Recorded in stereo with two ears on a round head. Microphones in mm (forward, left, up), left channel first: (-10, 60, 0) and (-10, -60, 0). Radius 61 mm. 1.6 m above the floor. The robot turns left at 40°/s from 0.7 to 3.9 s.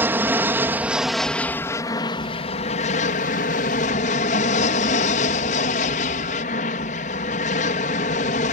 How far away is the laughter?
No laughter in this recording.